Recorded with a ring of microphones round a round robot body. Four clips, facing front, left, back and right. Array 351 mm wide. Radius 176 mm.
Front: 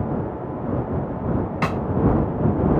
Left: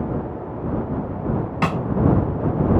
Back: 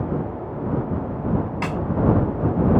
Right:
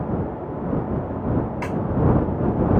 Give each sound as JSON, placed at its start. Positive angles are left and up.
{"t": 1.6, "sound": "a snare drum", "azimuth_deg": 65}